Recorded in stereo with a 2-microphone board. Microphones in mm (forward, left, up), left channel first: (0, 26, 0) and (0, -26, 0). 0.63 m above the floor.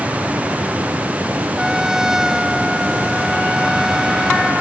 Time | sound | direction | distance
1.6 | a trumpet | 10° right (ahead or behind) | ?